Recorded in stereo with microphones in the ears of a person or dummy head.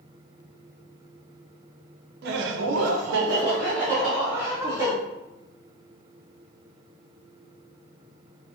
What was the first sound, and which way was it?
Laughter, 55° right (ahead or behind).